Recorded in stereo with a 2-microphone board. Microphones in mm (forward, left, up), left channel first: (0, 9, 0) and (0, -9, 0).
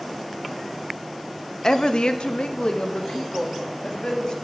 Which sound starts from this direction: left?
A woman speaking, at 1.6 s.